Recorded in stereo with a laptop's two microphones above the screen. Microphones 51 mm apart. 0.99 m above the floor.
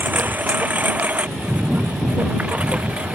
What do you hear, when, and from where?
0.0 s a lawn mower: 35° right (ahead or behind); by 3.2 s 20° right (ahead or behind)